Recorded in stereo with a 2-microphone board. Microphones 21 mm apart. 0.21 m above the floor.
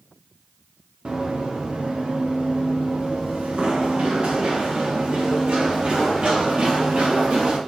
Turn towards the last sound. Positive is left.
turn(degrees=-65)  # may be behind; listen again after turning